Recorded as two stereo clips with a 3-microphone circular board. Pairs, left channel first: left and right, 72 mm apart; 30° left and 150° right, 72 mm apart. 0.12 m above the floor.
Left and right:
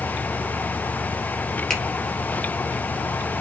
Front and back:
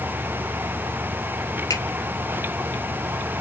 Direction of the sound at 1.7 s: 5° left.